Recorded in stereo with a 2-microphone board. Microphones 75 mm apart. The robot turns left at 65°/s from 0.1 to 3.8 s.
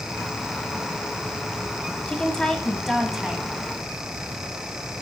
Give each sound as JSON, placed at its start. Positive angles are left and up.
{"t": 2.1, "sound": "a woman speaking", "side_deg": 15, "distance_m": 1.0}